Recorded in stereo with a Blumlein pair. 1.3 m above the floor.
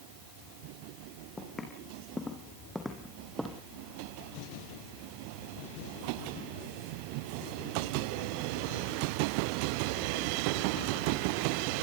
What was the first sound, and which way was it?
Footsteps, 15° left.